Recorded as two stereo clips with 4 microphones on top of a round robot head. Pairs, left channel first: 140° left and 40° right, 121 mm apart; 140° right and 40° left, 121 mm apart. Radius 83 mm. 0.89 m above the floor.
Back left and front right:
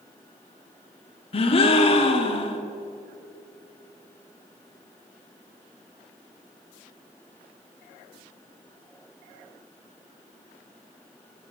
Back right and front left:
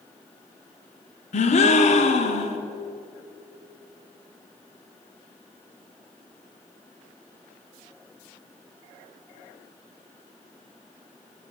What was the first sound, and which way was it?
A gasp, 175° right.